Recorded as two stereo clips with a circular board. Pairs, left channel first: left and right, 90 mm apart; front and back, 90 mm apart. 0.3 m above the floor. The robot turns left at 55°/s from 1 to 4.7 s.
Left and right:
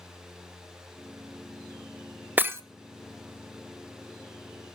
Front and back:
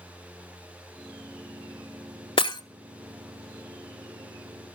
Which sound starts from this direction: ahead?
Breaking glass, at 2.4 s.